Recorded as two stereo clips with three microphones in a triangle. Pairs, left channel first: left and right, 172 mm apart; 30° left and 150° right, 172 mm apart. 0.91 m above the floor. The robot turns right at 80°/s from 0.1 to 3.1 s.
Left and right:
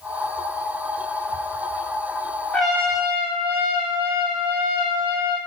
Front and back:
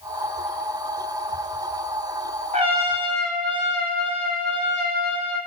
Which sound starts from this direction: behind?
A trumpet, at 2.5 s.